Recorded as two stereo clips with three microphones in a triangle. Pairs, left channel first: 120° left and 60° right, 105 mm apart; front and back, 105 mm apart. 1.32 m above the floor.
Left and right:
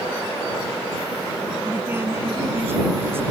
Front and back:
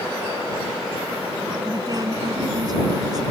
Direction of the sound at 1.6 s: 130° right.